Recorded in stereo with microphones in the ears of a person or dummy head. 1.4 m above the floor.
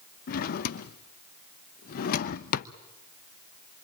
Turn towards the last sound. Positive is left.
turn(degrees=50)  # may be behind; listen again after turning